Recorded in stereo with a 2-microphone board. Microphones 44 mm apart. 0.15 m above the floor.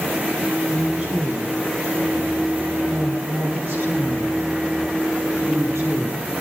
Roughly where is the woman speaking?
Right.